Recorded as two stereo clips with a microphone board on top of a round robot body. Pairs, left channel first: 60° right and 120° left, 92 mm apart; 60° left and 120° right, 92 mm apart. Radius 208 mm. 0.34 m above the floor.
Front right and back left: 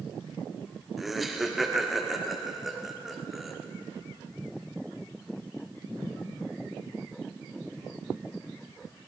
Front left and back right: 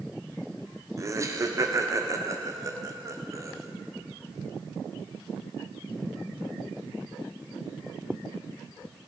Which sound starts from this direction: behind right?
Laughter, at 1.0 s.